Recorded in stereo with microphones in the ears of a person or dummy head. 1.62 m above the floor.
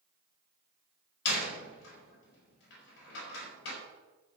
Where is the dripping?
I don't hear dripping.